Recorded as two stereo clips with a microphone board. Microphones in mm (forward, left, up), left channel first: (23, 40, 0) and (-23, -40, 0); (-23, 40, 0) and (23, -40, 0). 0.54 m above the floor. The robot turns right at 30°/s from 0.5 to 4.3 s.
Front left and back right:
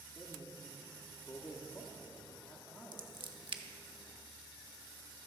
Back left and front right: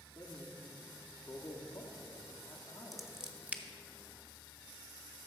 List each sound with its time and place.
0.1 s a man speaking: 25° left, 1.0 m; by 3.1 s 105° left, 1.0 m
2.9 s scissors: 150° right, 0.6 m; by 3.6 s 130° right, 0.6 m